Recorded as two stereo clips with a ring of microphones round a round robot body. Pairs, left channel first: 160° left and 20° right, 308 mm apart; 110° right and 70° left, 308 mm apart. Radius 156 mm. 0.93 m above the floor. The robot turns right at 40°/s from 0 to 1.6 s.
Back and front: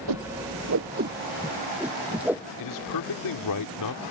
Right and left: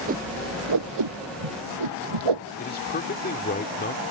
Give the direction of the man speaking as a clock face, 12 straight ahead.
6 o'clock.